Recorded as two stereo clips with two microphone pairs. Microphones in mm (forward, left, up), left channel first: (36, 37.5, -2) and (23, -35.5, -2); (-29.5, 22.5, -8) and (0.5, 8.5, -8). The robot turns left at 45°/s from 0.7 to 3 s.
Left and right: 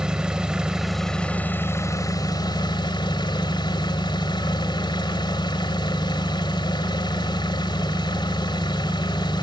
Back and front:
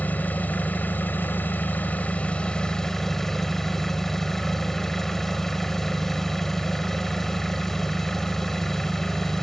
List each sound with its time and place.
0.0 s an engine running: straight behind, 1.8 m; by 9.4 s 75° left, 1.8 m